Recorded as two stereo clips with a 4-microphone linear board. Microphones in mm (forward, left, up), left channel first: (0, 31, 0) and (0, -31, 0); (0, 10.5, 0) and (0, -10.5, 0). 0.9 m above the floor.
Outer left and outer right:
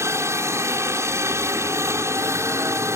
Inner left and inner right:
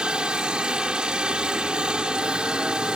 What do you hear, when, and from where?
0.0 s a helicopter: 45° right (ahead or behind)